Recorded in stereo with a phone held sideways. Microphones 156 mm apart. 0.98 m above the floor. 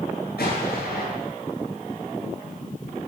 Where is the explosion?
80° left, 8.5 m.